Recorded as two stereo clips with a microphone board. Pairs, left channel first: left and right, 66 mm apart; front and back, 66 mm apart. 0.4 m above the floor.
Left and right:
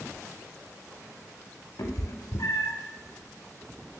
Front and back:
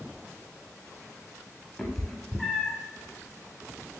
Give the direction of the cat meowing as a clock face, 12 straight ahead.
9 o'clock.